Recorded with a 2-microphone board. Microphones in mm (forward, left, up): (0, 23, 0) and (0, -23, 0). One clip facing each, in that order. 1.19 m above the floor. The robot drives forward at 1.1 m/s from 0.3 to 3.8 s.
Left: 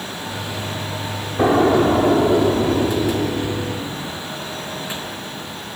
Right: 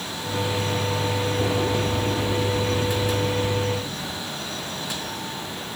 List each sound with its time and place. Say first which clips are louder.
1.4 s an explosion: left 13 dB; 55° left (ahead or behind)